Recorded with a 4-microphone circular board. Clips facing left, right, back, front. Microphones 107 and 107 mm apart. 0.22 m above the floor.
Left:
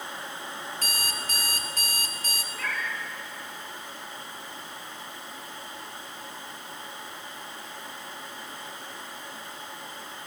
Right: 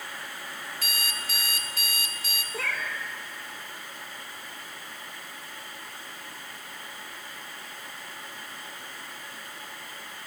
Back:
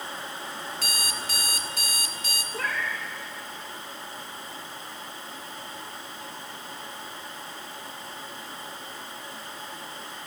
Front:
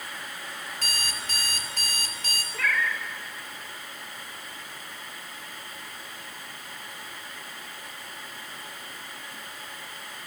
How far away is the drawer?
I don't hear a drawer.